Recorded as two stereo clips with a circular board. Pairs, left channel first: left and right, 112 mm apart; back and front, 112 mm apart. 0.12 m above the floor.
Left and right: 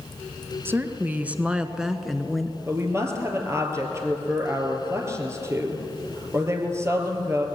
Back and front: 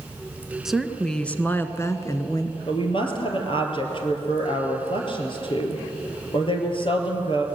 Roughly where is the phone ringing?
No phone ringing in this recording.